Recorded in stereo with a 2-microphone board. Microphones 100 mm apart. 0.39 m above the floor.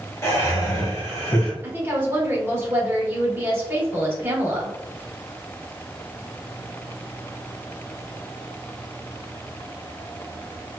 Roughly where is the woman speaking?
Right.